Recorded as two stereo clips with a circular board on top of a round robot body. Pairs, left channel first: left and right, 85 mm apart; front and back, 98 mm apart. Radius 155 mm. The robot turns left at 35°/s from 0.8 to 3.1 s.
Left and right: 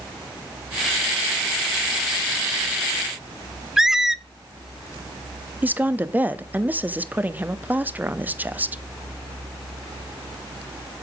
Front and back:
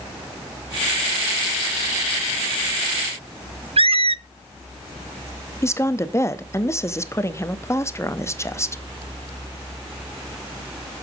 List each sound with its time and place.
3.8 s a squeak: 175° right, 0.6 m
5.6 s a woman speaking: 35° right, 1.2 m